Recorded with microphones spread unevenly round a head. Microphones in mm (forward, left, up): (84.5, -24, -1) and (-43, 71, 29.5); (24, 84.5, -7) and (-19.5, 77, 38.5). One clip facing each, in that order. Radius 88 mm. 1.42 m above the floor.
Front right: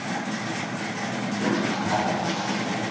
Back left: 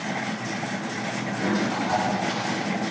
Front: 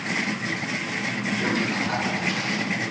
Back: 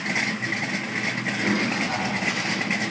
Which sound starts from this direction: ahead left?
A toilet flushing, at 1.4 s.